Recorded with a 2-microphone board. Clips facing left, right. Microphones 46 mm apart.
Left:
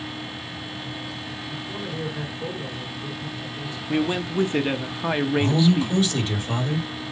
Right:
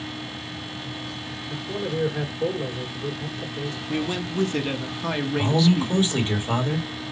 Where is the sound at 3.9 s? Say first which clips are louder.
Left 4 dB; 20° left (ahead or behind), 0.7 m.